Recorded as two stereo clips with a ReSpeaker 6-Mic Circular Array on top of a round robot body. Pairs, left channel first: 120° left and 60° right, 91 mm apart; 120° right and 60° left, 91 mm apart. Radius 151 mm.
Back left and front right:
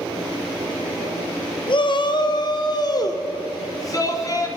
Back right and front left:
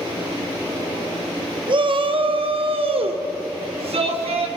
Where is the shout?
90° left, 2 m; by 4.5 s 65° left, 4 m.